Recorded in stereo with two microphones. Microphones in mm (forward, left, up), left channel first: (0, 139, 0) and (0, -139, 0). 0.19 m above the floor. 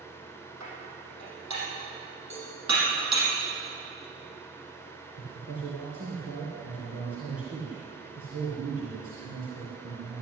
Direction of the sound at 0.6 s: 80° right.